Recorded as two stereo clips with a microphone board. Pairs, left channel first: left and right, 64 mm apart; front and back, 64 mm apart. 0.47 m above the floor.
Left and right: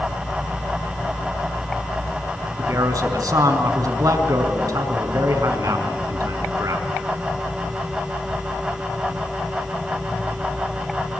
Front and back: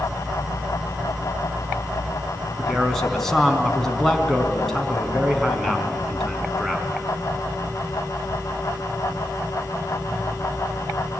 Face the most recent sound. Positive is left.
turn(degrees=-85)